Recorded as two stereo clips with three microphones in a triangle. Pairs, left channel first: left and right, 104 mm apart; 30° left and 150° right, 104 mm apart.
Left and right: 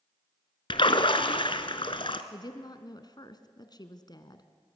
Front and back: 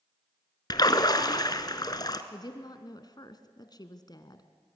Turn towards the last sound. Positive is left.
turn(degrees=60)